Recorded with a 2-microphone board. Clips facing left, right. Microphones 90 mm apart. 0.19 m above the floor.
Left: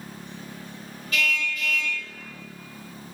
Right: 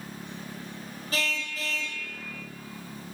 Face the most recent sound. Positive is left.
turn(degrees=-30)  # may be behind; listen again after turning